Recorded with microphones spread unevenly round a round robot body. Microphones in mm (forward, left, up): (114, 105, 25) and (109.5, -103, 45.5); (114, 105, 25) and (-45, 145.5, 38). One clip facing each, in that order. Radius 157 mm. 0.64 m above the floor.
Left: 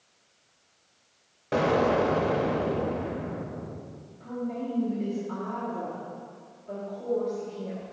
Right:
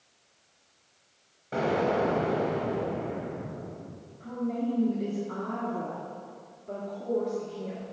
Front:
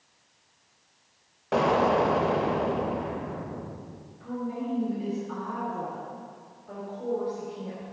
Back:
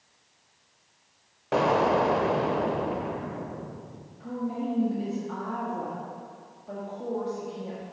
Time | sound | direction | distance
1.5 | an explosion | 80° left | 0.8 m
4.2 | a woman speaking | straight behind | 1.4 m